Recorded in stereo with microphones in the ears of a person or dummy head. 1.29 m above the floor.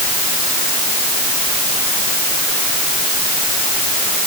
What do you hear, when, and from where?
Only background noise.